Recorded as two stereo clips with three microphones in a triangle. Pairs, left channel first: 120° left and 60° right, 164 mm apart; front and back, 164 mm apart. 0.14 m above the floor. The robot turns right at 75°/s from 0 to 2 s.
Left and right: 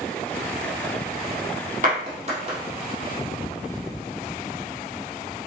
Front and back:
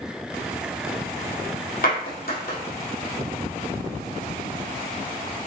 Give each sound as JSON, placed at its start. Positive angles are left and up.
{"t": 1.8, "sound": "a clap", "azimuth_deg": -30, "distance_m": 4.0}